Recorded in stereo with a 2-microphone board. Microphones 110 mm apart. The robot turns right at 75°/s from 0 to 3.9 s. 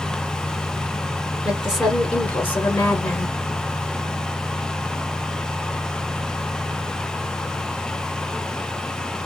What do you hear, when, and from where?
1.4 s a woman speaking: 10° right (ahead or behind), 1.4 m; by 3.4 s 15° left (ahead or behind), 1.4 m